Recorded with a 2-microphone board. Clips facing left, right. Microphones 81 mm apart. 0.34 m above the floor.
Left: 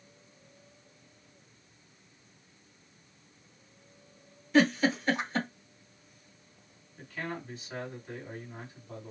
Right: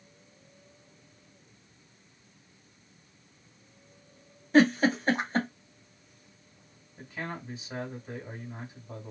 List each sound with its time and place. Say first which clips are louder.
4.5 s a giggle: right 3 dB; 40° right (ahead or behind), 1.5 m
7.0 s a man speaking: even; 15° right (ahead or behind), 2.0 m